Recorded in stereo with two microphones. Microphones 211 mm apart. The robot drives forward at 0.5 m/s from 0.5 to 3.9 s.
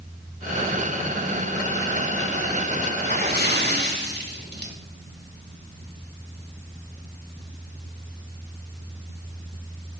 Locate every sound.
3.0 s a splash: 50° right (ahead or behind), 3 m